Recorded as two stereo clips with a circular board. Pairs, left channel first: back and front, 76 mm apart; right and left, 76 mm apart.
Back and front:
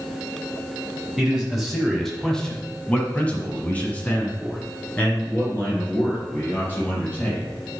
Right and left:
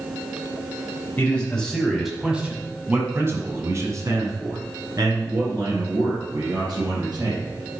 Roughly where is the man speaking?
Right.